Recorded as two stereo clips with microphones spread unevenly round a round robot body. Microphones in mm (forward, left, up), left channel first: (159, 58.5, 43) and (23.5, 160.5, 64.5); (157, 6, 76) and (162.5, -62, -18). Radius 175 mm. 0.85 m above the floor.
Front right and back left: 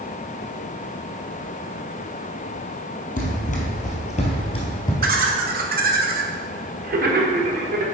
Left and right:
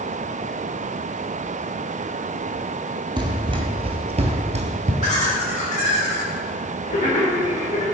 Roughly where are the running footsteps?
Ahead.